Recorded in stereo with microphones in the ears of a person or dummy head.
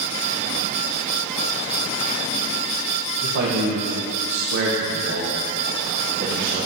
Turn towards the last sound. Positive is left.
turn(degrees=-45)  # may be behind; listen again after turning